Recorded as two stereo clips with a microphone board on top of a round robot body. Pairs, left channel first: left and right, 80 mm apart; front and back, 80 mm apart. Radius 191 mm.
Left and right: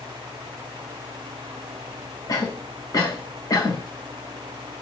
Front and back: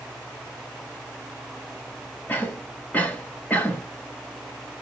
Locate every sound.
2.3 s a cough: 65° left, 1.6 m